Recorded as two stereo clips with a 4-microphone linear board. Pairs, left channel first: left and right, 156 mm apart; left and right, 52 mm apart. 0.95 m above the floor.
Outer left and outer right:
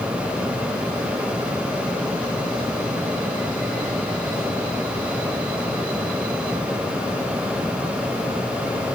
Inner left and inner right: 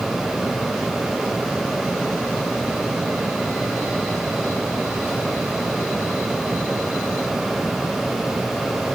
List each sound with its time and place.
Only background noise.